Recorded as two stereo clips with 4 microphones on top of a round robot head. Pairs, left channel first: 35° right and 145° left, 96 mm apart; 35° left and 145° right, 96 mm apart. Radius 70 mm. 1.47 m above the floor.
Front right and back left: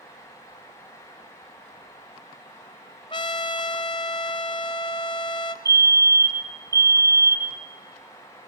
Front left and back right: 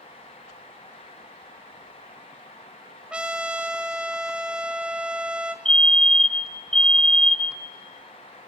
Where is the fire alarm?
115° left, 1.2 m.